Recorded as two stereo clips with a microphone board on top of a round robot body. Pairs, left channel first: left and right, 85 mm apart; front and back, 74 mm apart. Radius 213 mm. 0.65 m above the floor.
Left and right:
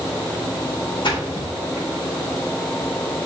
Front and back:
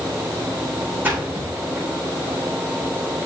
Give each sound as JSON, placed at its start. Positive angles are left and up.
{"t": 1.0, "sound": "a splash", "azimuth_deg": 115, "distance_m": 6.5}